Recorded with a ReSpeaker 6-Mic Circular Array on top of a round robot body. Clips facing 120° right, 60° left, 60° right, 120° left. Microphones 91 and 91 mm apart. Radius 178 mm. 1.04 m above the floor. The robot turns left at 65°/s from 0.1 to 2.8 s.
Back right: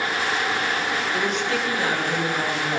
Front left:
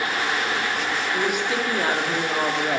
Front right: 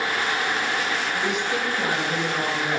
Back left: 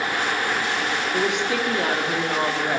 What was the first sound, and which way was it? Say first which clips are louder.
A woman speaking: front left 2 dB, back left 2 dB; 155° left.